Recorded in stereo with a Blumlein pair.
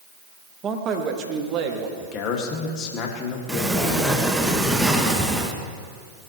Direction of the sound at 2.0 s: 35° left.